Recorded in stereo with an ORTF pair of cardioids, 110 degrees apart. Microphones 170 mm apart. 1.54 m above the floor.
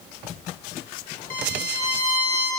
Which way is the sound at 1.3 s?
55° left.